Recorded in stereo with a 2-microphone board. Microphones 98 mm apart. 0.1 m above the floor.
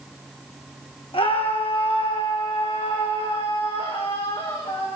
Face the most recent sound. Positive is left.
turn(degrees=55)  # may be behind; listen again after turning